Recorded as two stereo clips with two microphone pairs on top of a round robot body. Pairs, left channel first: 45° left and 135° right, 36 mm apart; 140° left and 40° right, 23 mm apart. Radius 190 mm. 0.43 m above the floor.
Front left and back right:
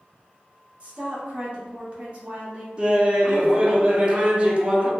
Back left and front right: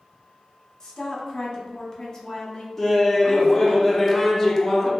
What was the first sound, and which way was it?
A woman speaking, 175° right.